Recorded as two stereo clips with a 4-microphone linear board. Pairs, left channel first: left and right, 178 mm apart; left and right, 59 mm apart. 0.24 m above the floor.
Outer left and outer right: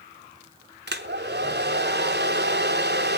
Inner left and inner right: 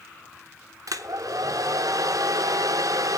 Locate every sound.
0.9 s a hair dryer: 70° right (ahead or behind), 0.9 m